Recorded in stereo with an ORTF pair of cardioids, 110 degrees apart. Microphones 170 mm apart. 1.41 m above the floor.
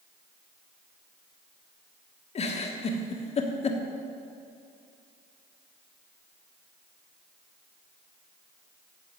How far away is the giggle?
About 1.4 m.